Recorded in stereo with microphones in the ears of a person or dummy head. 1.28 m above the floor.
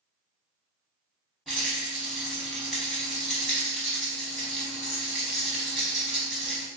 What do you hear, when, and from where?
1.5 s a rattle: centre (ahead or behind), 1.3 m